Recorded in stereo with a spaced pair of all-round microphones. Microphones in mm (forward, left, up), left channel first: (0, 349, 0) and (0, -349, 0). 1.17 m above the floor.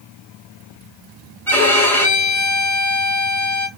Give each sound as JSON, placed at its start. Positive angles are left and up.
{"t": 1.5, "sound": "a violin", "side_deg": 5, "distance_m": 1.4}